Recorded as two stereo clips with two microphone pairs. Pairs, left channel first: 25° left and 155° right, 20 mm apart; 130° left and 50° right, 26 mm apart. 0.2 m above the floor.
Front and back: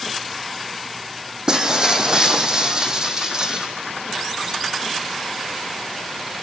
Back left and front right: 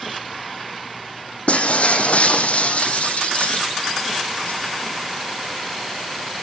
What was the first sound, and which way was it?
Breaking glass, 150° left.